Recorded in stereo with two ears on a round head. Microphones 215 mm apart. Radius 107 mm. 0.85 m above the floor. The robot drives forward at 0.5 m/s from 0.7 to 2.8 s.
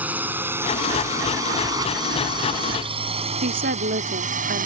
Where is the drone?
10° right (ahead or behind); by 4.7 s 40° right (ahead or behind).